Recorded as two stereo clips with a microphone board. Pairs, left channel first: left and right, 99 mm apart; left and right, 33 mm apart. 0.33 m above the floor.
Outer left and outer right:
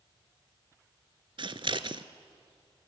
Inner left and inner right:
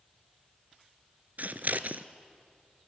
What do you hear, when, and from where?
1.4 s scissors: 55° right (ahead or behind), 0.9 m